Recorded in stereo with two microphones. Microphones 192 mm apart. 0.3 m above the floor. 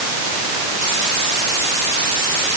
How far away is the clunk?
No clunk in this recording.